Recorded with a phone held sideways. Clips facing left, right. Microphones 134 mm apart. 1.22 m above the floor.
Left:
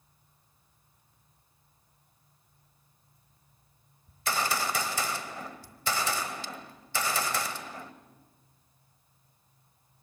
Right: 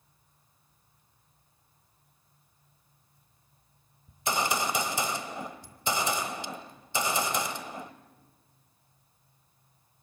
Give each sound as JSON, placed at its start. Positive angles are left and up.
{"t": 4.1, "sound": "a gunshot", "side_deg": -20, "distance_m": 1.1}